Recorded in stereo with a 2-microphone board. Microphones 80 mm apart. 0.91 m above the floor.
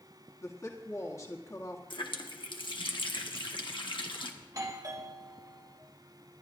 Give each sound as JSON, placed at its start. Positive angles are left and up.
{"t": 0.4, "sound": "a woman speaking", "side_deg": 35, "distance_m": 1.9}
{"t": 1.9, "sound": "a running tap", "side_deg": 75, "distance_m": 1.3}
{"t": 4.4, "sound": "a doorbell", "side_deg": -45, "distance_m": 1.3}